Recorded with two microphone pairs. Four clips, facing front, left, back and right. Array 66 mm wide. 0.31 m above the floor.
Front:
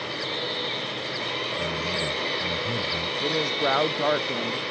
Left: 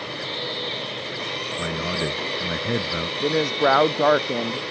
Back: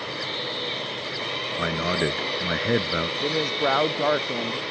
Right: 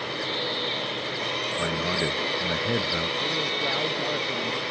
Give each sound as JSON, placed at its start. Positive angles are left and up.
{"t": 1.6, "sound": "a man speaking", "azimuth_deg": -175}
{"t": 3.2, "sound": "a woman speaking", "azimuth_deg": 95}